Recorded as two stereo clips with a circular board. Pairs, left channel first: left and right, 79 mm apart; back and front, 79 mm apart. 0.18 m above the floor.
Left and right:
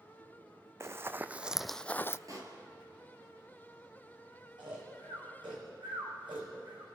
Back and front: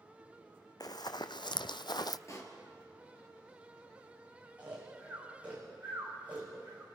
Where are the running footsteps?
145° right, 0.8 m; by 2.2 s 145° left, 0.5 m.